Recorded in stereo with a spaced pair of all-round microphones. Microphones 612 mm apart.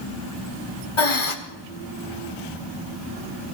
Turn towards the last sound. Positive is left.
turn(degrees=50)  # may be behind; listen again after turning